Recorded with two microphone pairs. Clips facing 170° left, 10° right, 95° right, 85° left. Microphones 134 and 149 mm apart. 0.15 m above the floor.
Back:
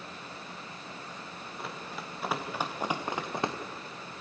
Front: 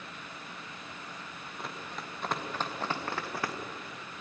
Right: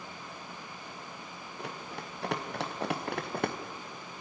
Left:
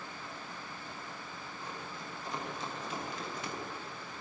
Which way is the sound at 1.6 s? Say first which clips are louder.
Back 1 dB, right 5 dB; 100° right.